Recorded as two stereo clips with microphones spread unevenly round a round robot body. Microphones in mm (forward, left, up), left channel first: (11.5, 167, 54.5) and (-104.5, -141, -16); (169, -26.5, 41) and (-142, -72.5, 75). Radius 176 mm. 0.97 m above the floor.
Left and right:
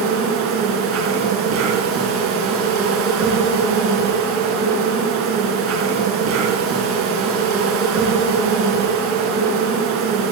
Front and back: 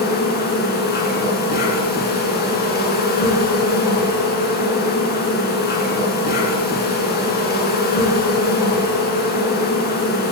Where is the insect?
55° right, 3 m.